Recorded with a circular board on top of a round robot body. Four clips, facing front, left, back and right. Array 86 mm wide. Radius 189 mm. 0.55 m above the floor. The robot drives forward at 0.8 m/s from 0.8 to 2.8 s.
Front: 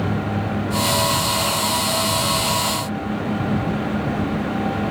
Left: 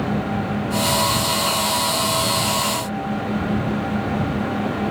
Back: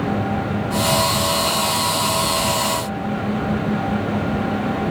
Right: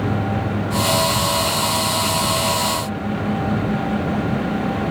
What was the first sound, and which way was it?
Only background noise.